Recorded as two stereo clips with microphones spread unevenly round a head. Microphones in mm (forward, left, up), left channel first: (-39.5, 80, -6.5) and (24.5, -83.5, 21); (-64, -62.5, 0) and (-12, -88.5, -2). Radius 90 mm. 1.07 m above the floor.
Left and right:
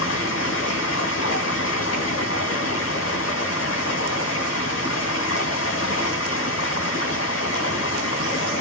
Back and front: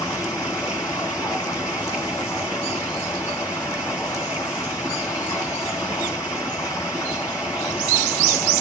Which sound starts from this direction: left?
Running water, at 0.0 s.